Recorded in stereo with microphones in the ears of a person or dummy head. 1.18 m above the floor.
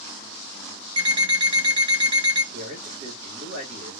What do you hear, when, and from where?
1.0 s an alarm clock: 25° right (ahead or behind), 0.7 m
2.5 s a man speaking: 65° right (ahead or behind), 1.7 m